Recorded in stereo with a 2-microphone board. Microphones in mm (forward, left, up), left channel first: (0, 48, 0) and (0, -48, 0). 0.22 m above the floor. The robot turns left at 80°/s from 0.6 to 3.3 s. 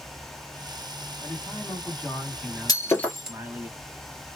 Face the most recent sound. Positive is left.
turn(degrees=-10)  # may be behind; listen again after turning